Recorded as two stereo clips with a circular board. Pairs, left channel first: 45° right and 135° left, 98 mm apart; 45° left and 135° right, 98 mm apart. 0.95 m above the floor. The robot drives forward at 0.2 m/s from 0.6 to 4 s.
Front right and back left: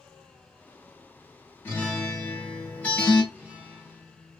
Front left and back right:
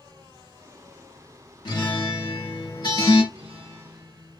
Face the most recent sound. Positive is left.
turn(degrees=-155)